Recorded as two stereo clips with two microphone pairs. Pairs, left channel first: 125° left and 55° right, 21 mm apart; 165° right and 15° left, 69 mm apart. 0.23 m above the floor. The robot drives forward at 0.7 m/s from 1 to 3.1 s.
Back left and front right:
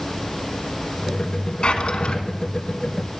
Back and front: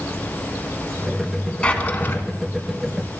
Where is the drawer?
125° left, 1.0 m; by 2.2 s 140° left, 1.3 m.